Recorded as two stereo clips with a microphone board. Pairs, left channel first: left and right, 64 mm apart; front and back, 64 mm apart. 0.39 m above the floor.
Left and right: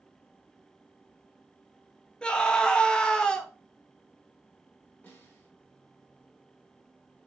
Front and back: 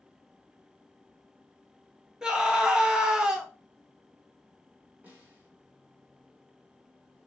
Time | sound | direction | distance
2.2 | a scream | 130° left | 0.8 m
5.0 | a snare drum | 140° left | 1.8 m